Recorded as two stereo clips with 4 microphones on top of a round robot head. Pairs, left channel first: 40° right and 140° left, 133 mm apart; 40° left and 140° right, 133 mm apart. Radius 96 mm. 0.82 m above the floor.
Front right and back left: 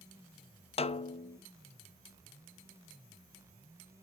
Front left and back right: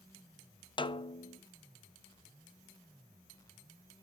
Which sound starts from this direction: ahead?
A snare drum, at 0.8 s.